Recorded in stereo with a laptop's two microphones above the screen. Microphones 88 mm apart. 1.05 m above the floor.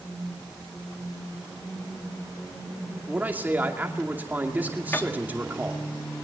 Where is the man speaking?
20° right (ahead or behind), 2 m.